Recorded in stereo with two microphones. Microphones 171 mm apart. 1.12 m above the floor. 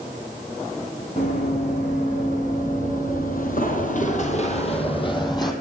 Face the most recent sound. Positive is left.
turn(degrees=25)  # may be behind; listen again after turning